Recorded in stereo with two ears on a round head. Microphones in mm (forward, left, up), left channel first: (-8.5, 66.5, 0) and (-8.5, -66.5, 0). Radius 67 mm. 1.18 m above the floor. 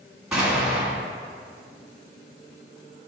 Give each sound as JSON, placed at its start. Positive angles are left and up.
{"t": 0.3, "sound": "an explosion", "side_deg": -5, "distance_m": 1.6}